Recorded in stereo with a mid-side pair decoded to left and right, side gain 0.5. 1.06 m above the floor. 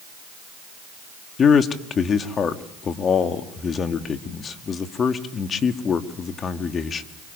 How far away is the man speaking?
About 1.7 m.